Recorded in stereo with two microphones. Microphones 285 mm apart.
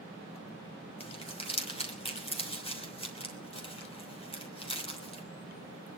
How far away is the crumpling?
About 3 m.